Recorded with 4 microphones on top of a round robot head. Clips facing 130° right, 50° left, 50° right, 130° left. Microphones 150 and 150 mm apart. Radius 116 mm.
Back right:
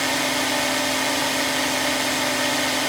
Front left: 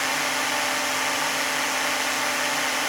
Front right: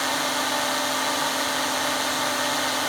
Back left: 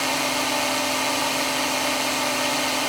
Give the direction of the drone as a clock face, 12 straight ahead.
5 o'clock.